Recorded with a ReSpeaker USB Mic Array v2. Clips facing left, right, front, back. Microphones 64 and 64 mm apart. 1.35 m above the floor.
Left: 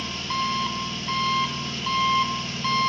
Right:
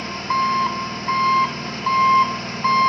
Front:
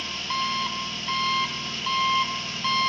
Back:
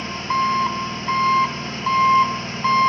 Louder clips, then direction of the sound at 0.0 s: Right 7 dB, back 8 dB; 130° right.